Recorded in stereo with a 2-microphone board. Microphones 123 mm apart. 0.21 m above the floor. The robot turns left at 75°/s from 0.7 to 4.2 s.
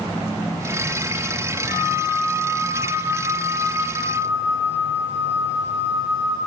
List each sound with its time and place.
1.7 s a flute: 150° right, 3 m; by 6.4 s 20° left, 3 m